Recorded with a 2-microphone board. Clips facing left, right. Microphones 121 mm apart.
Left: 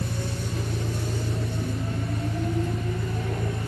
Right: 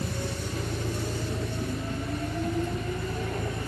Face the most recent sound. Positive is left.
turn(degrees=40)  # may be behind; listen again after turning